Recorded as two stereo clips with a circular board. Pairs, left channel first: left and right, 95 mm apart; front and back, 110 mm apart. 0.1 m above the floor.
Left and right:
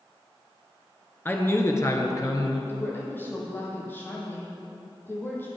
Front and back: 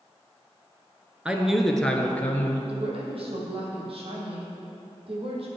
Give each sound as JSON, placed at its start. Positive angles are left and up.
{"t": 1.2, "sound": "a man speaking", "azimuth_deg": 115, "distance_m": 1.4}
{"t": 2.7, "sound": "a woman speaking", "azimuth_deg": 155, "distance_m": 4.0}